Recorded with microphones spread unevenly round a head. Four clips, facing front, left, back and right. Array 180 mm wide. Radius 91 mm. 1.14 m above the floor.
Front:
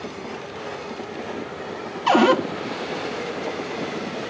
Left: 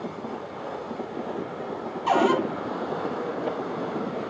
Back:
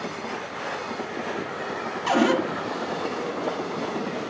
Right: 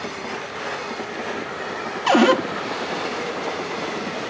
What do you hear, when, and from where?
2.1 s a cupboard door: 75° right, 1.5 m